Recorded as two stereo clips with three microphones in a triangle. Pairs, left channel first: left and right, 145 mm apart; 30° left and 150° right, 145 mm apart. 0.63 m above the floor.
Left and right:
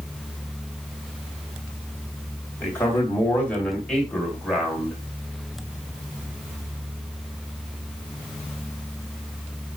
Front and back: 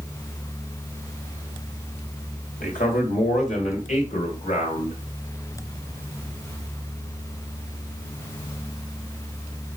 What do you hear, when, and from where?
2.6 s a man speaking: 15° left, 3.5 m; by 5.0 s 5° right, 3 m